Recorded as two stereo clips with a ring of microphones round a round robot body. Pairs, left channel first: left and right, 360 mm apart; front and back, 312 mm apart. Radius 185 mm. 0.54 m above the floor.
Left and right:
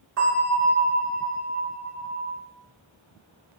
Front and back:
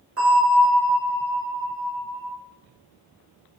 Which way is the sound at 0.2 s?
140° right.